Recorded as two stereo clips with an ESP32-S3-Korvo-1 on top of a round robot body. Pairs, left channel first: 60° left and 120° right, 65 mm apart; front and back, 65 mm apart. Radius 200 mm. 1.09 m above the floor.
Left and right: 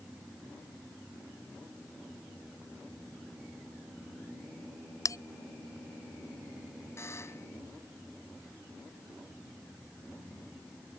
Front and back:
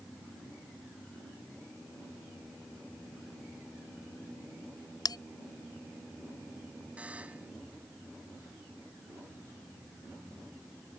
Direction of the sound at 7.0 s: 110° left.